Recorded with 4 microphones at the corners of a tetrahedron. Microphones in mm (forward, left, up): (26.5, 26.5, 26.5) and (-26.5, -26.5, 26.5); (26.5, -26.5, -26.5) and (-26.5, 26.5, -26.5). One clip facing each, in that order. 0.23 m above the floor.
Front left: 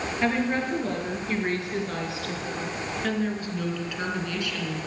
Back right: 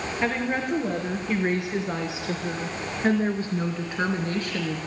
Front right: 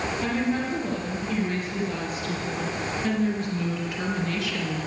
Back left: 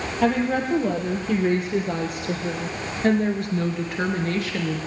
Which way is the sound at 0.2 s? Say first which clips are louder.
Front left 1 dB, back left 7 dB; 145° left.